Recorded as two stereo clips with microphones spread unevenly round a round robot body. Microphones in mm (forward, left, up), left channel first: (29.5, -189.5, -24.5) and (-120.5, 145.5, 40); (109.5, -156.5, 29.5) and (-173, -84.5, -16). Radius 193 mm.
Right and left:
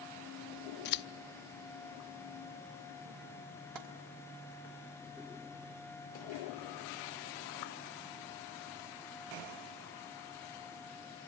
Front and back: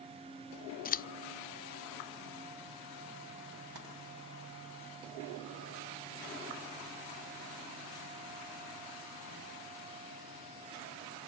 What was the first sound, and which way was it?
Scissors, 70° right.